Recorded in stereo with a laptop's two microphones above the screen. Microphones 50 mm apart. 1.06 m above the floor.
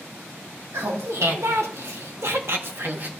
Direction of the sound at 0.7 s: 60° right (ahead or behind).